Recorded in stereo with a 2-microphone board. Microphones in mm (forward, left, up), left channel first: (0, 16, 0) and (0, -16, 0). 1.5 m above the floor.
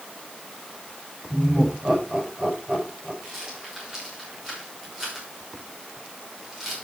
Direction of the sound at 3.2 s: 15° right (ahead or behind).